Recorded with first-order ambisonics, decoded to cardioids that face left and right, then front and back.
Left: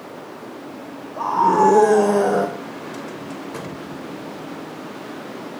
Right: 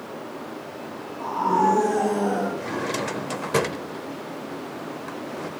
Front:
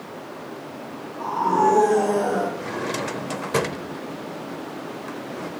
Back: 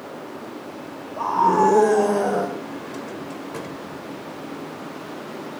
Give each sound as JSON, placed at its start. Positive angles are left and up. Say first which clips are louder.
{"t": 1.2, "sound": "a scream", "louder": "left 6 dB, back 3 dB", "azimuth_deg": 125, "distance_m": 1.7}
{"t": 2.6, "sound": "a drawer", "louder": "right 5 dB, front 5 dB", "azimuth_deg": -40, "distance_m": 0.7}